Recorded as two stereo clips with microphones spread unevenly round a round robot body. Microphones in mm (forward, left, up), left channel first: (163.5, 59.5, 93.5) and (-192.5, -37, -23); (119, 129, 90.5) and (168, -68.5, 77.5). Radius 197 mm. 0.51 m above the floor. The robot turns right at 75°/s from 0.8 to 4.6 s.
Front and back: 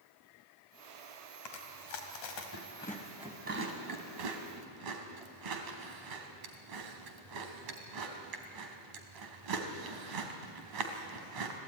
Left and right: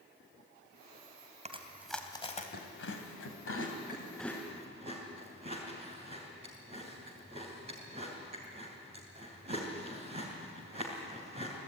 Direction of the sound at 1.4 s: 20° right.